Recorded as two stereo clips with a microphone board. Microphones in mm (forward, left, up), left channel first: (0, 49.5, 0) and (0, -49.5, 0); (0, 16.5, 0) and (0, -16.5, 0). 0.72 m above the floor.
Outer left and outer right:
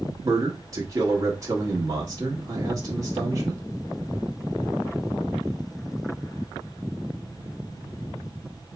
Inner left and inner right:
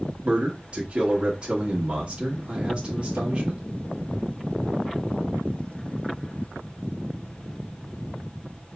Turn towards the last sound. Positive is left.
turn(degrees=-35)  # may be behind; listen again after turning